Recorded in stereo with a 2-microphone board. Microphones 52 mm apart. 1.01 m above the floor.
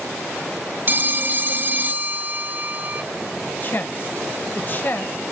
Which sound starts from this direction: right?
A phone ringing, at 0.9 s.